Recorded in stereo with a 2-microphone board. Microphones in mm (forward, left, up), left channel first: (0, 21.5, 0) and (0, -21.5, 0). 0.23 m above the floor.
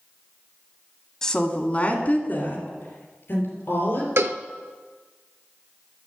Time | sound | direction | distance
1.2 | a woman speaking | 10° left (ahead or behind) | 1.3 m
4.2 | a cowbell | 80° right | 0.6 m